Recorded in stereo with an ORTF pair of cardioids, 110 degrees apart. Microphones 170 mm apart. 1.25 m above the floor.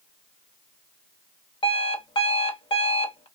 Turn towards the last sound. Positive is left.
turn(degrees=30)